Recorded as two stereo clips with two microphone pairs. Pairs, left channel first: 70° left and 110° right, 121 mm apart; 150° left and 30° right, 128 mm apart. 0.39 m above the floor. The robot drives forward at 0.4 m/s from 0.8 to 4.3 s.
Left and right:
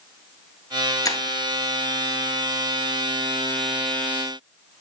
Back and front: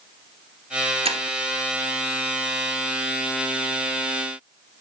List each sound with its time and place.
1.1 s breaking glass: 10° left, 1.0 m